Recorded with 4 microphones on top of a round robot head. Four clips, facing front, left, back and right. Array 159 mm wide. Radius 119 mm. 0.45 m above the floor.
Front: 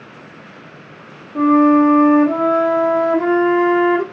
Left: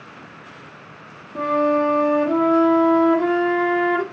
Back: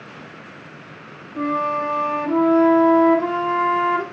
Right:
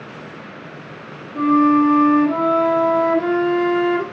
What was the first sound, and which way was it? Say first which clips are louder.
A flute: right 5 dB, front 11 dB; 25° left.